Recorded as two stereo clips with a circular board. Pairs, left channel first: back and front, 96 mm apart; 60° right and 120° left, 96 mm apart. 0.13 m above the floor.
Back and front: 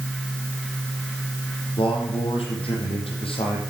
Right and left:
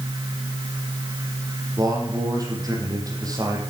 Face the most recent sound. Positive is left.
turn(degrees=170)